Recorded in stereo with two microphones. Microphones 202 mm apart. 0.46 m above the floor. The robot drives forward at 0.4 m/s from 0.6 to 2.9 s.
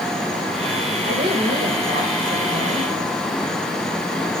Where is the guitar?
No guitar in this recording.